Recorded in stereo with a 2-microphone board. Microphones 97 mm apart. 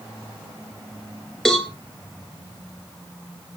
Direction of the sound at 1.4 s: 5° left (ahead or behind).